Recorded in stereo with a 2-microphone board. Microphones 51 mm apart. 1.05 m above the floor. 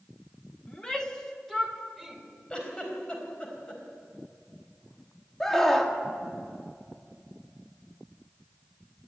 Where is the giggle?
20° left (ahead or behind), 4.5 m.